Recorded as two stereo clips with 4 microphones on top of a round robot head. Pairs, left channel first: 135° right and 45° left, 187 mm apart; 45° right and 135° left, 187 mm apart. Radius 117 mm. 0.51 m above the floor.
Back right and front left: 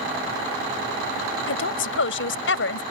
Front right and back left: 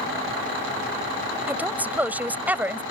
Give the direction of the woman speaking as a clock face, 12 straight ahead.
5 o'clock.